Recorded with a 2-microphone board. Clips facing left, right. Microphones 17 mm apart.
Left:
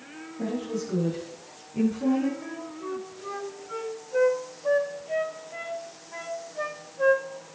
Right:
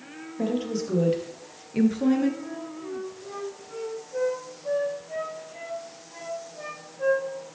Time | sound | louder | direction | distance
0.4 | a woman speaking | right 3 dB | 60° right (ahead or behind) | 3 m
2.4 | a flute | even | 45° left (ahead or behind) | 3 m